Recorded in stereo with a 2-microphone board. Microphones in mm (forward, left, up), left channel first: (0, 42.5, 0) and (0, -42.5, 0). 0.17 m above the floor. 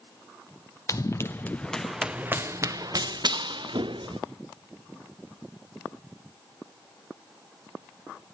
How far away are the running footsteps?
About 1.0 m.